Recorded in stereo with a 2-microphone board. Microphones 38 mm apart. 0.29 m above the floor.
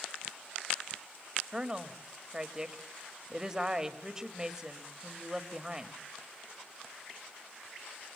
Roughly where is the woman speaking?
Centre.